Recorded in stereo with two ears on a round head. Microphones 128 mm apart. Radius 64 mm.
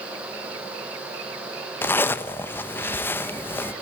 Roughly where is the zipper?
Centre.